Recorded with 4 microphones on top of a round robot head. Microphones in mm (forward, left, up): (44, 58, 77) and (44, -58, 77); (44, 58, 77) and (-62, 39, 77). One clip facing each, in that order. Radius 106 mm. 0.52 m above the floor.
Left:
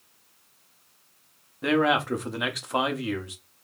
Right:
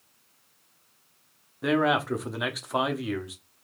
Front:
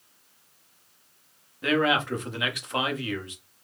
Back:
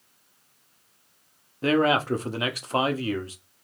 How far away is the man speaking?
About 0.9 m.